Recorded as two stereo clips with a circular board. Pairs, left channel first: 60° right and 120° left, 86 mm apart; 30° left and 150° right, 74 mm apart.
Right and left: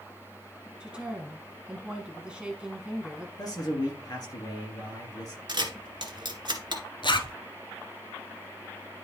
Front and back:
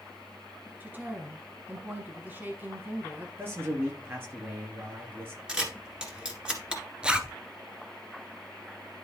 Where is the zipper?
75° right, 0.8 m.